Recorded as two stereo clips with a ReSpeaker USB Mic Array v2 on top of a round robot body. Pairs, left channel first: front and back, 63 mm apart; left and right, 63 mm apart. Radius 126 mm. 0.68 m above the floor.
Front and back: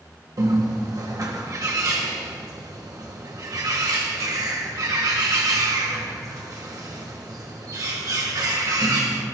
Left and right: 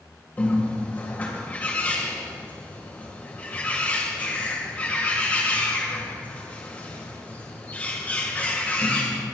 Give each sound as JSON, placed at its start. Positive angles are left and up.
{"t": 0.4, "sound": "a bird", "azimuth_deg": 155, "distance_m": 1.8}